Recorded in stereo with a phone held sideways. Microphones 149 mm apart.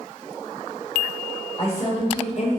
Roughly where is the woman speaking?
Left.